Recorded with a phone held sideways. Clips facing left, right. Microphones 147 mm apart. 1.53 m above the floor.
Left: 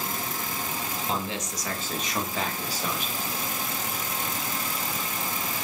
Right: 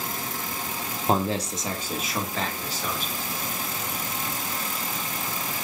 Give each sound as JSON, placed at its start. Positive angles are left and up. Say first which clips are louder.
{"t": 1.1, "sound": "a man speaking", "louder": "right 9 dB", "side_deg": -50, "distance_m": 0.6}